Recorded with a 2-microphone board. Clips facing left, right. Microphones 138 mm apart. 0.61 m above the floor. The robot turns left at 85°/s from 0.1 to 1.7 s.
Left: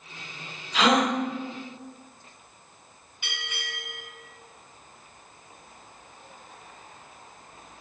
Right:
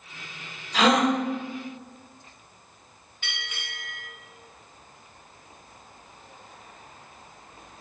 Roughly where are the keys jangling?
No keys jangling in this recording.